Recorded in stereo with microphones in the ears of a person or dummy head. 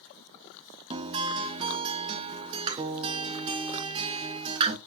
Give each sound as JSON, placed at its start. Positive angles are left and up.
{"t": 0.9, "sound": "a guitar", "side_deg": -30, "distance_m": 0.8}